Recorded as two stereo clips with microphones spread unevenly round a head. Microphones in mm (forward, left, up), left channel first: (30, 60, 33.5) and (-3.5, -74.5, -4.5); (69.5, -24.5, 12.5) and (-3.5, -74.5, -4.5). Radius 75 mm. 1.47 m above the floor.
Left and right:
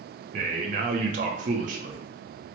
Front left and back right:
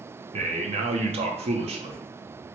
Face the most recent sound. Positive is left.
turn(degrees=-150)